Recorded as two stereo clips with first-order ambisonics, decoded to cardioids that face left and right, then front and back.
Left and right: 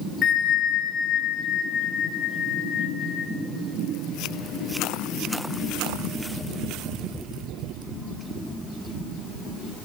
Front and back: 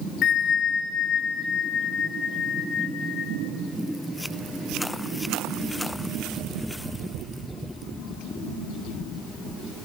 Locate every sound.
0.2 s a bell: 40° left, 0.5 m